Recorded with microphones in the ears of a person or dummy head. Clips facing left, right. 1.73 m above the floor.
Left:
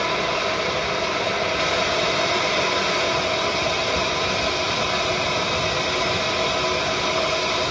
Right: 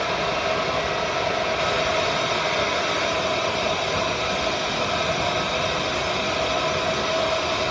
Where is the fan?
80° left, 4.5 m.